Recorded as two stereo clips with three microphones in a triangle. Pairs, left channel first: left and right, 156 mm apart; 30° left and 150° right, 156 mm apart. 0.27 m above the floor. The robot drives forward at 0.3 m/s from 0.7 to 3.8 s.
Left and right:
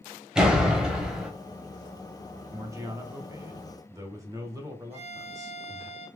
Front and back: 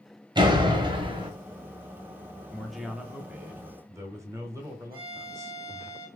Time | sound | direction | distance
0.3 | a door slam | 170° right | 1.1 m
2.5 | a man speaking | 55° right | 1.0 m
4.9 | a violin | 140° right | 2.5 m